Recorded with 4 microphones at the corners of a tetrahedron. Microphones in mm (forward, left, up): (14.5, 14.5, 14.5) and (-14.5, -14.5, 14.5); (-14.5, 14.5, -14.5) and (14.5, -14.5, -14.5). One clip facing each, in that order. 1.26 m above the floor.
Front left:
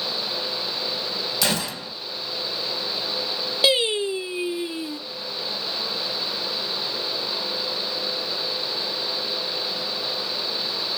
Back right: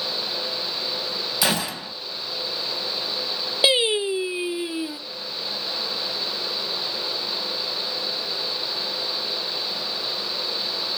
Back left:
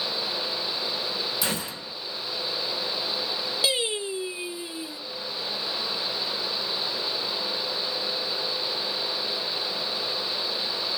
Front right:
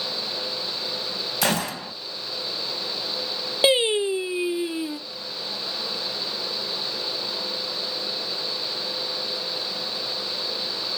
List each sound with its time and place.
1.4 s a gunshot: 65° right, 2 m
3.6 s singing: 70° right, 1.0 m